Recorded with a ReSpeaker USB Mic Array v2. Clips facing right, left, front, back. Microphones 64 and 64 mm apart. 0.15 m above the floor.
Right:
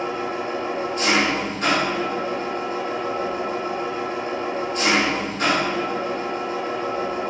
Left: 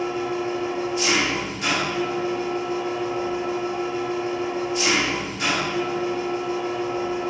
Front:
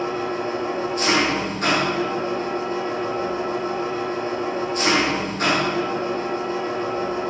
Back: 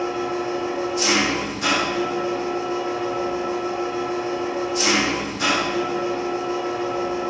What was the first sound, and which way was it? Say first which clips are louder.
An engine running: left 1 dB, even; 45° right.